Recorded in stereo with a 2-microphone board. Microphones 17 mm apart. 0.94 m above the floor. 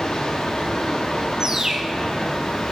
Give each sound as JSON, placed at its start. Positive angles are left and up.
{"t": 0.0, "sound": "running water", "side_deg": 60, "distance_m": 1.3}
{"t": 1.4, "sound": "a bird", "side_deg": -40, "distance_m": 0.8}